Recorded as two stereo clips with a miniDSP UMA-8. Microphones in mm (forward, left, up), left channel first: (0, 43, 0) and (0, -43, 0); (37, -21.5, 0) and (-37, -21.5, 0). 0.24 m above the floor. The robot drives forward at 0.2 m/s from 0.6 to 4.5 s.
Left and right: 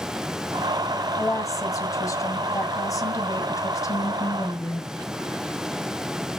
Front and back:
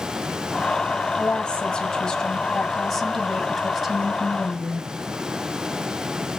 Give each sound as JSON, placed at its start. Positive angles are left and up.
{"t": 1.2, "sound": "a woman speaking", "azimuth_deg": 65, "distance_m": 1.7}